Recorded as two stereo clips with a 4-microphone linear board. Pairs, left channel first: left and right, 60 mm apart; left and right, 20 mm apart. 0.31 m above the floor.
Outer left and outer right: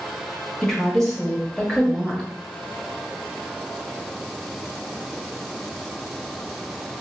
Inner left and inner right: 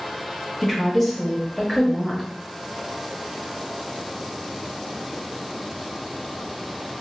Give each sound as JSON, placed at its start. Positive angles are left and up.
{"t": 0.6, "sound": "a woman speaking", "side_deg": 10, "distance_m": 0.9}